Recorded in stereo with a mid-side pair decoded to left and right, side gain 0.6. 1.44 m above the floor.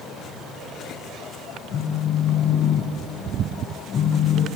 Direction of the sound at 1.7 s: 45° left.